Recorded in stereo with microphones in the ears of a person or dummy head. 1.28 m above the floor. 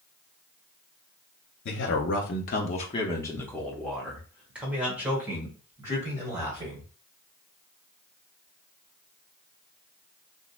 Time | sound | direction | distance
1.6 | a man speaking | 55° left (ahead or behind) | 0.8 m